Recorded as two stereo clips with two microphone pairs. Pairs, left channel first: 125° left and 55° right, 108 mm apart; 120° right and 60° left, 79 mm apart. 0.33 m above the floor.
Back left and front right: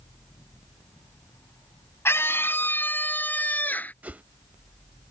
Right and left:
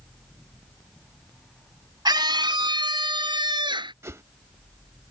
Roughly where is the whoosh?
Ahead.